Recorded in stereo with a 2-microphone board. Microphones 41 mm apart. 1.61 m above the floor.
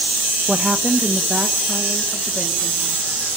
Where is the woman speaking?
5° right (ahead or behind), 0.9 m; by 3.2 s 15° left (ahead or behind), 4 m.